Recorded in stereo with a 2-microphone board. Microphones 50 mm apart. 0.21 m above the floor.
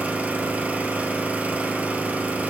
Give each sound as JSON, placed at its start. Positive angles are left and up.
{"t": 0.0, "sound": "an engine running", "side_deg": -25, "distance_m": 1.7}